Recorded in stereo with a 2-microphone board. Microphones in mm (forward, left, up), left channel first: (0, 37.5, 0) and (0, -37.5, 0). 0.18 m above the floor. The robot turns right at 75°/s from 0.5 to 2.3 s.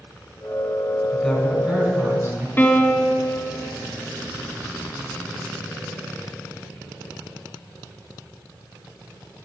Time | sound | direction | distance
1.1 | a woman speaking | 155° left | 1.5 m
2.6 | a piano | 30° left (ahead or behind) | 0.8 m